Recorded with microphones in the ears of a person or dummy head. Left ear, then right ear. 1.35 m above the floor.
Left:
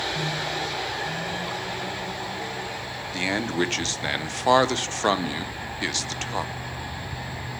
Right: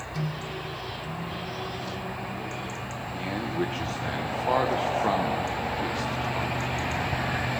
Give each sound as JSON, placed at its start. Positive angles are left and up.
{"t": 0.1, "sound": "a microwave", "side_deg": -85, "distance_m": 7.0}
{"t": 3.1, "sound": "a man speaking", "side_deg": 65, "distance_m": 0.8}